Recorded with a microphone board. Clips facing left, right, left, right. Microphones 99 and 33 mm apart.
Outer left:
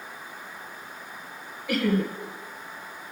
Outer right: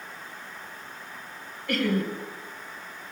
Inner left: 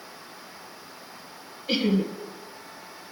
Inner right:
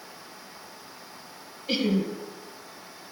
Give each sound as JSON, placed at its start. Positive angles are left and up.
{"t": 1.7, "sound": "laughter", "side_deg": 5, "distance_m": 1.9}